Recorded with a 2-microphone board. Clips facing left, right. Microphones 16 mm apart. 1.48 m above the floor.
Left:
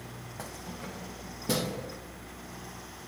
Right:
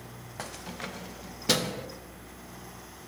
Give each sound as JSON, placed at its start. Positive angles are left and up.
{"t": 0.4, "sound": "keys jangling", "side_deg": -30, "distance_m": 0.5}